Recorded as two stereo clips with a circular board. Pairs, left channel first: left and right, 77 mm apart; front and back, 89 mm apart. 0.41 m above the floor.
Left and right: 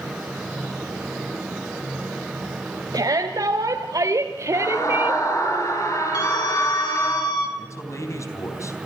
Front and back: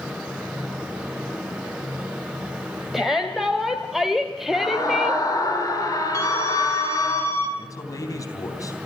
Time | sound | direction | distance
2.9 | a shout | 95° right | 1.9 m
4.5 | a scream | 45° left | 7.5 m
6.1 | a scream | 55° left | 6 m
7.6 | a man speaking | 45° left | 3.5 m